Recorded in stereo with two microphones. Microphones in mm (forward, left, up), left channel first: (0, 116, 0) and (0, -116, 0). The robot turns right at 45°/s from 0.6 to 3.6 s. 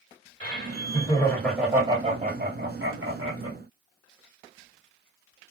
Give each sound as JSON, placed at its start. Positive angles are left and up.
{"t": 0.4, "sound": "laughter", "azimuth_deg": 140, "distance_m": 1.7}